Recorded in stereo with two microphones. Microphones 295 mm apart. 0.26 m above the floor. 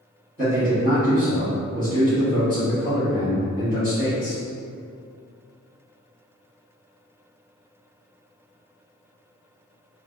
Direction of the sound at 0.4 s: 30° right (ahead or behind).